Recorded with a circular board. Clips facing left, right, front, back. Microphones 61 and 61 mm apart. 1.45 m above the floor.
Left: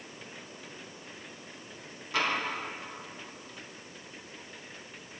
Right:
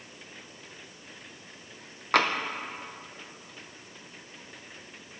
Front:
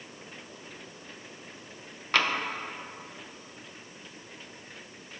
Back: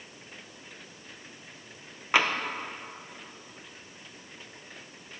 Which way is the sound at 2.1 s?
105° right.